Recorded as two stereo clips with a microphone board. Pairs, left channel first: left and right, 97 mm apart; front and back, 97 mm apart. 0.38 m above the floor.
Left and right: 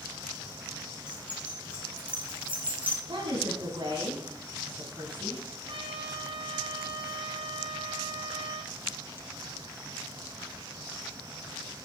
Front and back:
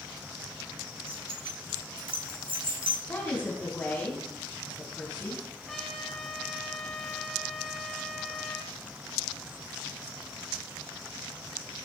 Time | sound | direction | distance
1.1 | keys jangling | 170° right | 4 m
3.1 | a woman speaking | 65° right | 2.5 m
5.7 | a trumpet | 85° right | 1.9 m